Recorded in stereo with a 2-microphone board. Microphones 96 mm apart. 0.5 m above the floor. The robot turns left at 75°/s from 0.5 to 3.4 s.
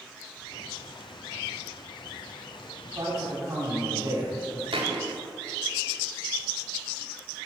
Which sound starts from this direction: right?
A thud, at 4.7 s.